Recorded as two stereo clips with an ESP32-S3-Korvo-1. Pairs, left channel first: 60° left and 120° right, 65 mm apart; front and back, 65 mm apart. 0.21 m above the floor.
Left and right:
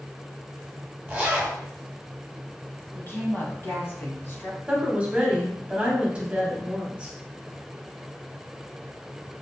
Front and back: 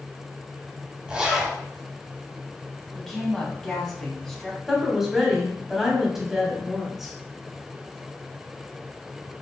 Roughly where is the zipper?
Behind right.